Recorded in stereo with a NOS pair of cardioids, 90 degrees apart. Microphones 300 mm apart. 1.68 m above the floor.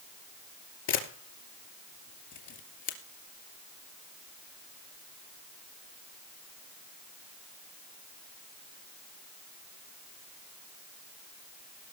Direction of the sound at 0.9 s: 70° left.